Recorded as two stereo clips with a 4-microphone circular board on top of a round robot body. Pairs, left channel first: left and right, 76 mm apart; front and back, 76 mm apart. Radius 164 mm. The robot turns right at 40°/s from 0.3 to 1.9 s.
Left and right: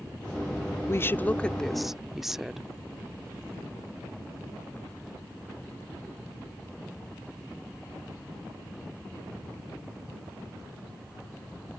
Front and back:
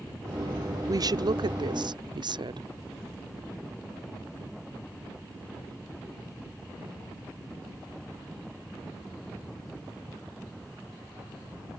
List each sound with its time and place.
0.9 s a woman speaking: 145° left; by 2.7 s 175° right